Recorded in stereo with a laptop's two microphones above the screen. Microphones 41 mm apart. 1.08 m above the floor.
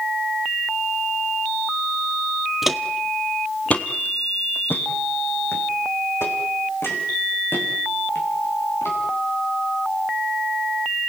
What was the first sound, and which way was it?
Footsteps, 5° right (ahead or behind).